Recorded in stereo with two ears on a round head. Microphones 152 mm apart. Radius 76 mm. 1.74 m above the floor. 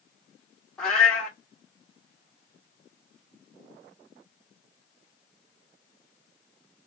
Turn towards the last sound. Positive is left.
turn(degrees=5)  # may be behind; listen again after turning